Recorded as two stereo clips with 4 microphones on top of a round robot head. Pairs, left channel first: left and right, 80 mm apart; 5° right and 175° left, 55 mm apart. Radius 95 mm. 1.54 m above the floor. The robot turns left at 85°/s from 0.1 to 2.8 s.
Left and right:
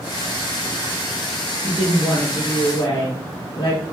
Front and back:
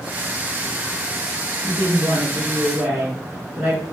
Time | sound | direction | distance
1.6 | a woman speaking | 145° right | 0.6 m